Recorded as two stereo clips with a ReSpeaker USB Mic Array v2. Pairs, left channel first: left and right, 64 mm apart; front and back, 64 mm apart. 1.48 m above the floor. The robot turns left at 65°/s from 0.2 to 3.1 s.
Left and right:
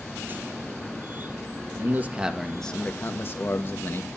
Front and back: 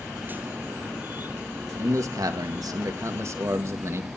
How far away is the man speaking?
About 1.6 m.